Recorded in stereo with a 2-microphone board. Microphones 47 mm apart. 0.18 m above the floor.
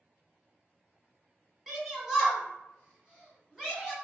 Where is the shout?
5° right (ahead or behind), 1.9 m; by 3.9 s 15° right (ahead or behind), 1.8 m.